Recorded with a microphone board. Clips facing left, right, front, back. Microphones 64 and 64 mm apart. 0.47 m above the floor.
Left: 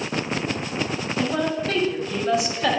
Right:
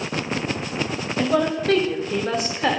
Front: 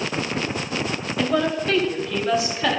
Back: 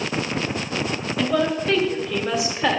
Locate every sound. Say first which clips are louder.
1.2 s a woman speaking: right 4 dB, even; 90° right, 2.5 m; by 2.8 s 130° right, 1.4 m